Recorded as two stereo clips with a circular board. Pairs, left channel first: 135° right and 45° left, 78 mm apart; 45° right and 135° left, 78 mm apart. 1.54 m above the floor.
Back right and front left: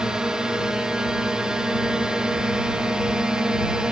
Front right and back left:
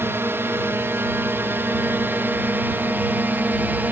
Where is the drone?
115° left; by 3.9 s 110° left.